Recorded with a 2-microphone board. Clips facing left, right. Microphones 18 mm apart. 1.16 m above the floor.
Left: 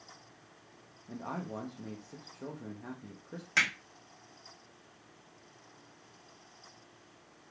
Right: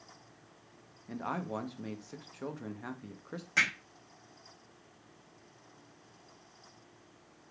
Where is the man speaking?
75° right (ahead or behind), 0.5 m.